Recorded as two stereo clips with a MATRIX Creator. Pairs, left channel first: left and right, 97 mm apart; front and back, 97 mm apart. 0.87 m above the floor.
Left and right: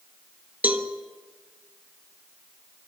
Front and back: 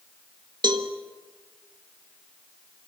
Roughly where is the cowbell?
Behind.